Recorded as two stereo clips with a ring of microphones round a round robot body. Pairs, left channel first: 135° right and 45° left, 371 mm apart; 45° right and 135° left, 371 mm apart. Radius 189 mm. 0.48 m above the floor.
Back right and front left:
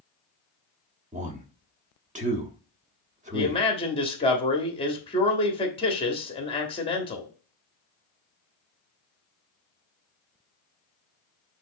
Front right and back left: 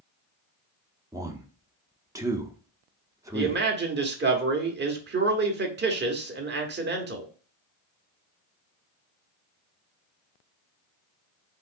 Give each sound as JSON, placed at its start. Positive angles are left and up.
{"t": 1.1, "sound": "a man speaking", "azimuth_deg": 70, "distance_m": 0.7}
{"t": 3.3, "sound": "a man speaking", "azimuth_deg": 160, "distance_m": 1.1}